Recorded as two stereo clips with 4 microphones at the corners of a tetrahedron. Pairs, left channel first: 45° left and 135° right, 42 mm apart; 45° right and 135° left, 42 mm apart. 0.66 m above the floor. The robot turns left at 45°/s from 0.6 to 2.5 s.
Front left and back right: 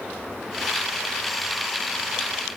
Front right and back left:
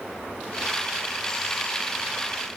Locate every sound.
Only background noise.